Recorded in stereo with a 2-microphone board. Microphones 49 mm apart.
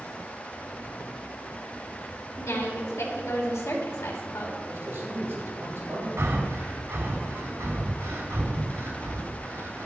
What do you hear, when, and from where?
2.4 s a woman speaking: 80° left, 3 m
4.7 s a man speaking: 55° right (ahead or behind), 5.5 m
6.2 s breathing: 70° right (ahead or behind), 2.5 m